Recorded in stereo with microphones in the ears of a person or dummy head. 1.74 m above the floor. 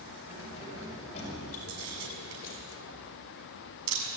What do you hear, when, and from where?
0.3 s keys jangling: 30° left (ahead or behind), 7 m; by 2.6 s 45° left (ahead or behind), 5.5 m
1.7 s a camera shutter: 80° right, 7 m